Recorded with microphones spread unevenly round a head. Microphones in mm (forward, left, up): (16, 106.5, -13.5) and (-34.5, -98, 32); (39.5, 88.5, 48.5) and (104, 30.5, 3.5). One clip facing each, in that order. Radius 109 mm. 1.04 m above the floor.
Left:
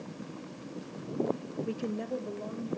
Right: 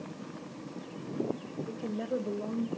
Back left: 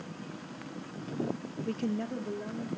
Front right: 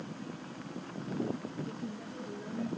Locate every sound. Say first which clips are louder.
1.7 s a woman speaking: even, back left 8 dB; 100° left, 0.6 m; by 2.7 s 150° right, 1.2 m